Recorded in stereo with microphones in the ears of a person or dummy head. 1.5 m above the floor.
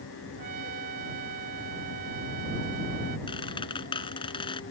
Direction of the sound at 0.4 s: 50° right (ahead or behind).